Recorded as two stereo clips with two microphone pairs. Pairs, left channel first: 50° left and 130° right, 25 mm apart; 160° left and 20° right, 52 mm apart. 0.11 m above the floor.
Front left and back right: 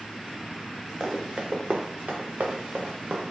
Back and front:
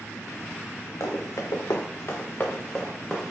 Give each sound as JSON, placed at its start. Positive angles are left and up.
{"t": 1.0, "sound": "running footsteps", "azimuth_deg": 170, "distance_m": 0.9}